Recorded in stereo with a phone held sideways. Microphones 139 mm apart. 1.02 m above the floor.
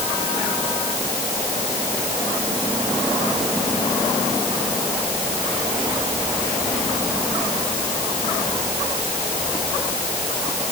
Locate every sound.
Only background noise.